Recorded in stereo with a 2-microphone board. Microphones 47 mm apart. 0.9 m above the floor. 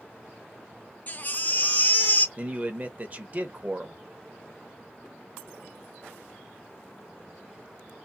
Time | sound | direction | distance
1.1 | a baby crying | 35° left (ahead or behind) | 0.5 m
2.4 | a man speaking | 30° right (ahead or behind) | 0.7 m